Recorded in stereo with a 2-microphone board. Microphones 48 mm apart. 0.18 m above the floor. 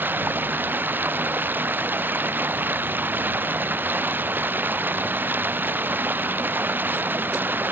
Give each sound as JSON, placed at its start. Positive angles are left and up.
{"t": 0.0, "sound": "running water", "side_deg": -40}